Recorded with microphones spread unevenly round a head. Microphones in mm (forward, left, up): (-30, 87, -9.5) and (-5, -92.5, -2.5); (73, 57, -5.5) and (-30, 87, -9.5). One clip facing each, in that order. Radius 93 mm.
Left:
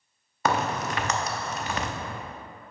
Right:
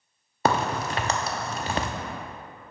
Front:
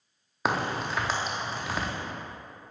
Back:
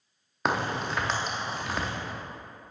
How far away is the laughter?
No laughter in this recording.